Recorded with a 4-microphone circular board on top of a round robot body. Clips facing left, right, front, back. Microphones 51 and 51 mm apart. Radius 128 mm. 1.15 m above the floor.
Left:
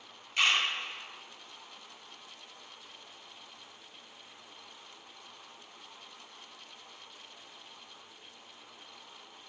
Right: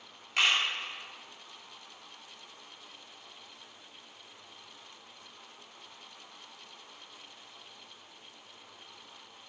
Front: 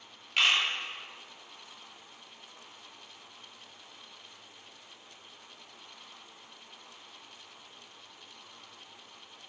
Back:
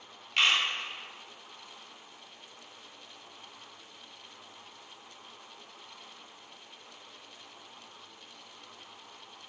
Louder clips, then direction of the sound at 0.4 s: Even, even; 85° right.